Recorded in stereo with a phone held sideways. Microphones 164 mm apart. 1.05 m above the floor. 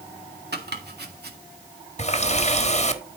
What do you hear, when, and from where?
0.5 s chopping: 85° right, 1.9 m
2.0 s a running tap: 45° left (ahead or behind), 1.2 m